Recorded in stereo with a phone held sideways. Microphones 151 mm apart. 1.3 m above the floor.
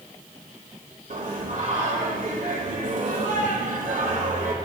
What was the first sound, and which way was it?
Singing, 60° right (ahead or behind).